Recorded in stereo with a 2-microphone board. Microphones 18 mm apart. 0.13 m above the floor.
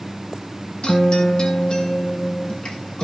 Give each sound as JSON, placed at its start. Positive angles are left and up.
{"t": 0.8, "sound": "a guitar", "side_deg": 60, "distance_m": 4.0}